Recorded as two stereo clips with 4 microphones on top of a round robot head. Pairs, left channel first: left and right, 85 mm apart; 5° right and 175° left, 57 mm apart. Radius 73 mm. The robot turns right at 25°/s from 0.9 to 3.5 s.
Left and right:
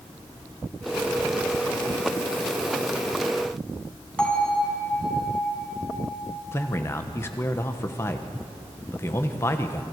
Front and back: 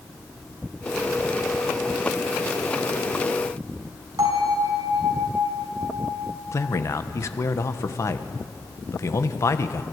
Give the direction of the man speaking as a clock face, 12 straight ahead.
11 o'clock.